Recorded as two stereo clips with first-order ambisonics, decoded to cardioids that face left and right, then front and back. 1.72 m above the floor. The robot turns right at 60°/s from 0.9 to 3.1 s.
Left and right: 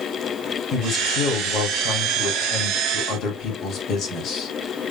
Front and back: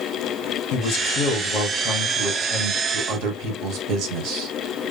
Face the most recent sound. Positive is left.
turn(degrees=150)